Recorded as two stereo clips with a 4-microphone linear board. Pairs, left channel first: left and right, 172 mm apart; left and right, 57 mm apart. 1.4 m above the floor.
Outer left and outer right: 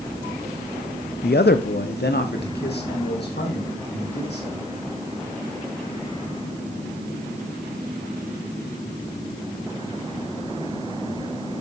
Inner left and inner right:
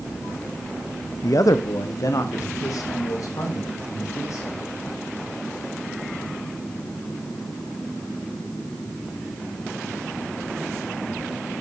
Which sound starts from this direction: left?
A man speaking, at 1.2 s.